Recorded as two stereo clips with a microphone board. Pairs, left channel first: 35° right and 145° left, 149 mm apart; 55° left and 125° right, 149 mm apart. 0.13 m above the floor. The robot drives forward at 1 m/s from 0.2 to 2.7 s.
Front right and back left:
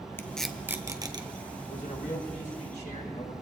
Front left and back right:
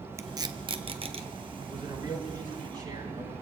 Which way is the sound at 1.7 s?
60° right.